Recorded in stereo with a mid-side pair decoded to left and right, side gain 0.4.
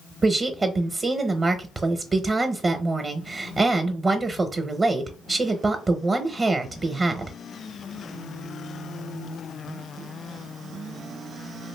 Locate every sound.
0.2 s a woman speaking: 40° right, 0.7 m